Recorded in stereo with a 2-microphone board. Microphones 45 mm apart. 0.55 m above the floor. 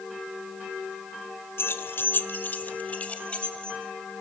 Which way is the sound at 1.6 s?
65° left (ahead or behind).